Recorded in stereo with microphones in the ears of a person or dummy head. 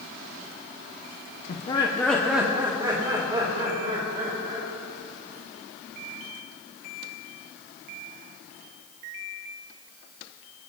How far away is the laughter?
About 1.0 m.